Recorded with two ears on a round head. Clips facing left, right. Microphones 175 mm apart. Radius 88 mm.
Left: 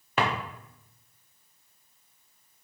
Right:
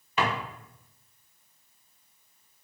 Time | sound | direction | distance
0.2 | a drawer | 45° left (ahead or behind) | 0.6 m